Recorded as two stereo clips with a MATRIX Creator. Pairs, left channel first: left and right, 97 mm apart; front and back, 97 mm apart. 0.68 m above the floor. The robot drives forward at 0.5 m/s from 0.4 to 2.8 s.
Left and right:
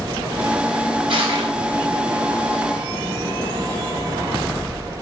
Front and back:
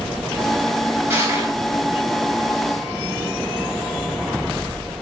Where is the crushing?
115° right, 4.5 m.